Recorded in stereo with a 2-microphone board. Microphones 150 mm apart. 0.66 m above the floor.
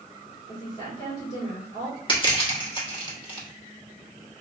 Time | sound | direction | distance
0.5 | a woman speaking | 35° left (ahead or behind) | 1.9 m
2.1 | crushing | 30° left (ahead or behind) | 1.3 m